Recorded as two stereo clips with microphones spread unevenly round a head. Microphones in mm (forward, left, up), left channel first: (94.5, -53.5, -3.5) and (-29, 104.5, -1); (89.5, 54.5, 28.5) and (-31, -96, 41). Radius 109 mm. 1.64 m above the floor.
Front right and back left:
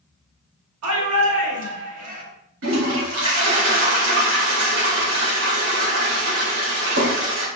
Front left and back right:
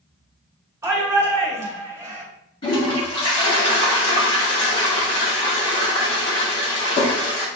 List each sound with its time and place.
0.8 s a shout: 155° left, 3.5 m
2.6 s a toilet flushing: 120° left, 3 m